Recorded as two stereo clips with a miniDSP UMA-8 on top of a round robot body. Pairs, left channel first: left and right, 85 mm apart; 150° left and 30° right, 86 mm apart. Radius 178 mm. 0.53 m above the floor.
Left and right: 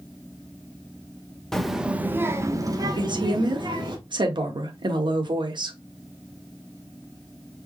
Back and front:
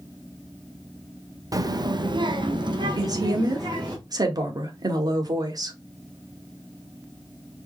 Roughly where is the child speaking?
Ahead.